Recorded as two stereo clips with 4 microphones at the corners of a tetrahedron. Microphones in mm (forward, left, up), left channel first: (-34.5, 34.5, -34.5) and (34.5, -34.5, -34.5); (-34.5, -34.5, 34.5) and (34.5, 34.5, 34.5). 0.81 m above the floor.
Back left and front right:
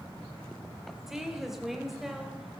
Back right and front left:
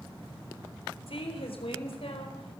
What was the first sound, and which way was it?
A woman speaking, 130° right.